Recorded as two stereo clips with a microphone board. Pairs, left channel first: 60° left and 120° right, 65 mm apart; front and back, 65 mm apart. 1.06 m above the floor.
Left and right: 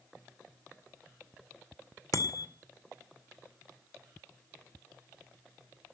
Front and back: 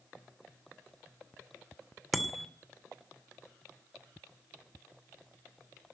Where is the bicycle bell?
90° left, 2.5 m.